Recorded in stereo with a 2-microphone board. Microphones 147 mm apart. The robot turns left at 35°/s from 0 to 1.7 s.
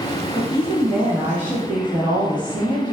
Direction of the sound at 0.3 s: 25° left.